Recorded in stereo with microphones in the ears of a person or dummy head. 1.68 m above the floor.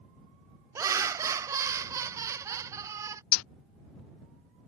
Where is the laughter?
15° right (ahead or behind).